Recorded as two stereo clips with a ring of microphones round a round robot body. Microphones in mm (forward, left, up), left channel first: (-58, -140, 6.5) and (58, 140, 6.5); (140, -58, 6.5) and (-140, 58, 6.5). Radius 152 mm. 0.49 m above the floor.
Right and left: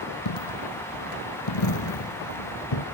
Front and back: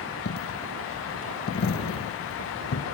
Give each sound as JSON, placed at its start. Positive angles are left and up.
{"t": 0.2, "sound": "a dropped coin", "azimuth_deg": -80}